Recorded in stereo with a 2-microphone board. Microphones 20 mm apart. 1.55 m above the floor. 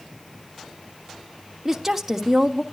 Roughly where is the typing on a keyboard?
No typing on a keyboard in this recording.